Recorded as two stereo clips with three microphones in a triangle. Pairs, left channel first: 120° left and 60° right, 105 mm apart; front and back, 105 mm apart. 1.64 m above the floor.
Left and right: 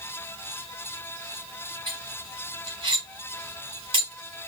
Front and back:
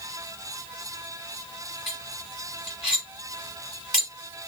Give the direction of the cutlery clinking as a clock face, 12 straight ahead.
3 o'clock.